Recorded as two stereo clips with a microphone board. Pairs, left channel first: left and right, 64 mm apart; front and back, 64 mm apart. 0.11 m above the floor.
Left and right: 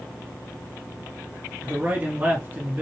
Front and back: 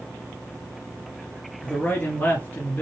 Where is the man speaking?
45° right, 1.9 m.